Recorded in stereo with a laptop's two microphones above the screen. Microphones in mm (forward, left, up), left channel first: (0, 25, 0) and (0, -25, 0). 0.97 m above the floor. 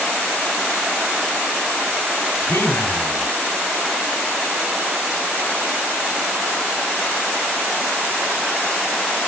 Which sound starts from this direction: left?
A man speaking, at 2.4 s.